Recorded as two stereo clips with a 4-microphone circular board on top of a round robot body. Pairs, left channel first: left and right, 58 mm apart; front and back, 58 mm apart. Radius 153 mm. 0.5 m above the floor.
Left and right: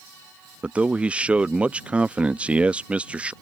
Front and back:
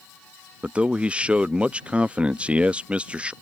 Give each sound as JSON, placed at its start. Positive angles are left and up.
{"t": 0.6, "sound": "a man speaking", "azimuth_deg": -135}